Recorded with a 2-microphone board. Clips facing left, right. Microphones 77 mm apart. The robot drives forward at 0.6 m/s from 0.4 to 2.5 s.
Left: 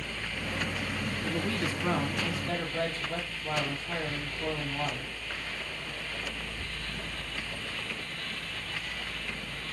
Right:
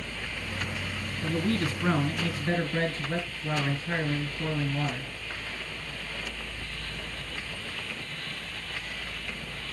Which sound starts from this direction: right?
A man speaking, at 1.2 s.